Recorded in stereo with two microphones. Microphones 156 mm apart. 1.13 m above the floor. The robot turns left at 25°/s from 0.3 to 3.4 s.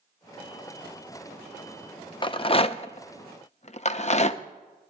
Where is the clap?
No clap in this recording.